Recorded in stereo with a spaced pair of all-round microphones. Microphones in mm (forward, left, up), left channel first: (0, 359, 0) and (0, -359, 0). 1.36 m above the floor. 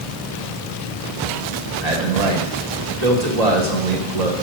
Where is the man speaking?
65° right (ahead or behind), 1.6 m.